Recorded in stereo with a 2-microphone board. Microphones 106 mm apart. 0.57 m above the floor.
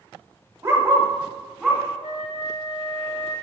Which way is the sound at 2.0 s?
70° left (ahead or behind).